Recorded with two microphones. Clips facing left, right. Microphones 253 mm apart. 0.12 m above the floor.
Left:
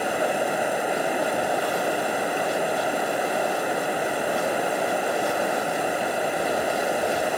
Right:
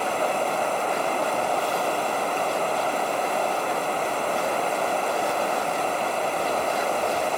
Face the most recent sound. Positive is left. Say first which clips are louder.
# left 1 dB
turn(degrees=10)  # may be behind; listen again after turning